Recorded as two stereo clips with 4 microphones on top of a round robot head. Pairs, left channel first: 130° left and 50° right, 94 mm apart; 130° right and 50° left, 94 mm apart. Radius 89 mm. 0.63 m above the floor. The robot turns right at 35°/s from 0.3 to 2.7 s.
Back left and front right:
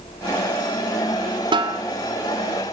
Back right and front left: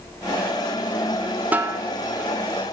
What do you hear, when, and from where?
1.5 s a snare drum: 25° right, 3 m; by 1.8 s 15° right, 3 m